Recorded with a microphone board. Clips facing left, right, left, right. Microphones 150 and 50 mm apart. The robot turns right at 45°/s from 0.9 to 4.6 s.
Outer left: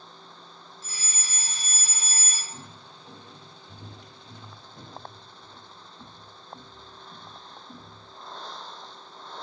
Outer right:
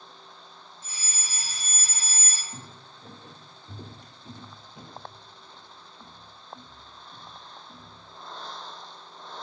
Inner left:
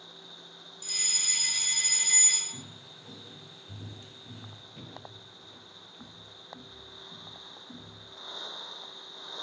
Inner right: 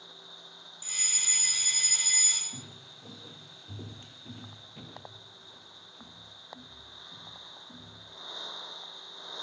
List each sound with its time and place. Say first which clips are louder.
0.8 s a fire alarm: outer left 1 dB, even; 20° right (ahead or behind), 2.0 m; by 2.4 s 10° left (ahead or behind), 2.0 m
2.5 s footsteps: even, inner left 1 dB; 35° right (ahead or behind), 2.5 m; by 8.0 s 55° left (ahead or behind), 3 m